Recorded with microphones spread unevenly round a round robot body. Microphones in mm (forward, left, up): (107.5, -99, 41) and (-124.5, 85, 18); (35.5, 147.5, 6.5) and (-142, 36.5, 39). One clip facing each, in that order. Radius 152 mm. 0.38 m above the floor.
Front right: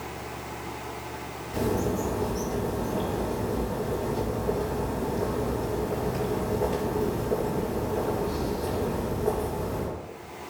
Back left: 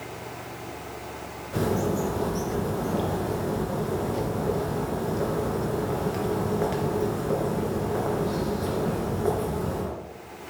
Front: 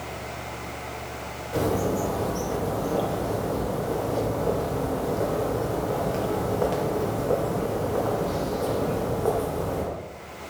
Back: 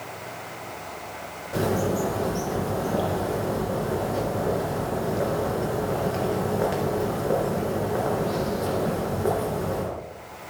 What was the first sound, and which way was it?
A bird, 135° left.